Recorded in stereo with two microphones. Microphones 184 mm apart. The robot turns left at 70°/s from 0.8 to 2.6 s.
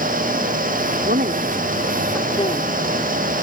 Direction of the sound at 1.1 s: 65° right (ahead or behind).